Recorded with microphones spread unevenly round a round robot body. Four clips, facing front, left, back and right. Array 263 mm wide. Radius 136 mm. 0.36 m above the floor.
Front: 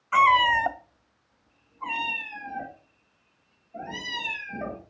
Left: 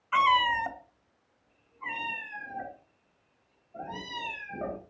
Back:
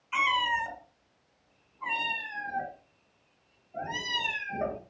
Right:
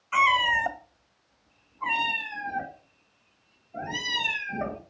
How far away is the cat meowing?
About 1.0 m.